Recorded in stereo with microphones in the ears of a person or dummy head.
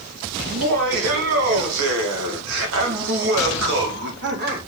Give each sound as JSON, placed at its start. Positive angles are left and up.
{"t": 0.5, "sound": "laughter", "side_deg": -65, "distance_m": 2.5}